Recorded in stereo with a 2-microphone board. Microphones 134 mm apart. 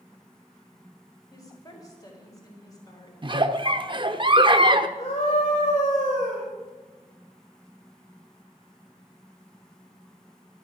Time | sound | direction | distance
1.3 | a woman speaking | 25° left (ahead or behind) | 5 m
3.2 | a giggle | 40° right (ahead or behind) | 0.8 m
5.0 | a scream | 50° left (ahead or behind) | 3.5 m